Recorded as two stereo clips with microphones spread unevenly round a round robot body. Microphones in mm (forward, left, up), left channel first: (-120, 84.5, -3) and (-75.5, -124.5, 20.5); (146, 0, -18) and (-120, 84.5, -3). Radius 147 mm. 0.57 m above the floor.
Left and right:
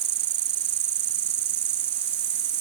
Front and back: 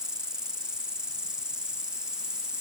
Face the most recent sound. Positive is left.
turn(degrees=-110)